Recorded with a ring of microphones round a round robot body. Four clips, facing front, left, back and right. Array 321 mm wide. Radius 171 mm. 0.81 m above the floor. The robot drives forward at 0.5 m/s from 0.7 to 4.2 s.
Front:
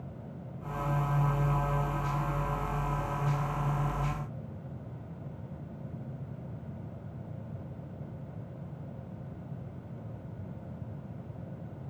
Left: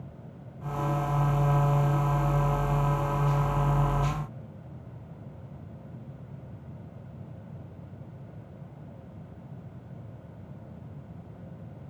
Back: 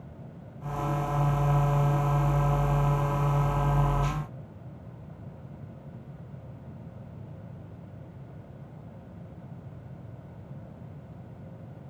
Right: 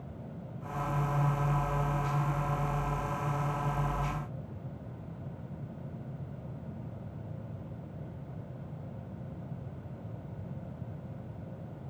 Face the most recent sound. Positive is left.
No sound to turn to.